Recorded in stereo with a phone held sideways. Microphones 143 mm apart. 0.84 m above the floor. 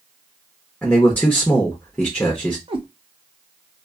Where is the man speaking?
10° left (ahead or behind), 0.7 m.